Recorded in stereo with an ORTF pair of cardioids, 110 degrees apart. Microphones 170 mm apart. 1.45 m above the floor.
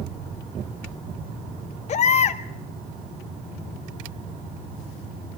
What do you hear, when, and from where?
1.9 s a baby crying: 45° left, 1.9 m